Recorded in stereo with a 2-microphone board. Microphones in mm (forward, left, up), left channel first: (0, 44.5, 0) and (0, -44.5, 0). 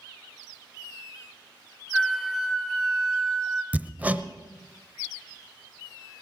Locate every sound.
1.9 s a flute: centre (ahead or behind), 1.3 m
3.7 s hammering: 20° right (ahead or behind), 0.7 m